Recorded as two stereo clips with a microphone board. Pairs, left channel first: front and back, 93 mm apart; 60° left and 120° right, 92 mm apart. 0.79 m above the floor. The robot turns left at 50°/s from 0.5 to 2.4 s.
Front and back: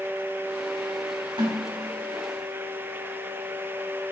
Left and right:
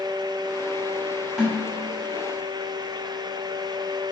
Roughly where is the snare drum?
Behind left.